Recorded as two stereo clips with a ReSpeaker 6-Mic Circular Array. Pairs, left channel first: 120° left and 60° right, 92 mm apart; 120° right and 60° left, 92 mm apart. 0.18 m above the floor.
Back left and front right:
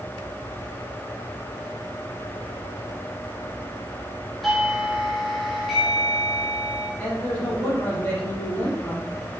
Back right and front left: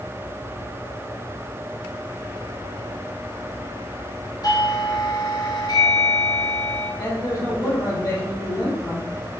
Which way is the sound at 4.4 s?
150° right.